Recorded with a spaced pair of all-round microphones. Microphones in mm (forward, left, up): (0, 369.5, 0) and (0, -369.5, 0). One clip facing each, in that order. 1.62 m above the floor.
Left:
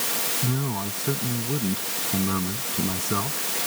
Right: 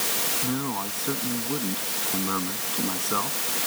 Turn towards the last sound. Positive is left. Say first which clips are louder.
# even
turn(degrees=55)  # may be behind; listen again after turning